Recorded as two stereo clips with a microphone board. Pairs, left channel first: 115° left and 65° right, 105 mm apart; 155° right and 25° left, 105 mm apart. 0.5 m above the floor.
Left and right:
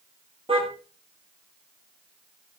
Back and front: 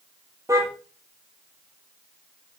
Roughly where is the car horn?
Ahead right.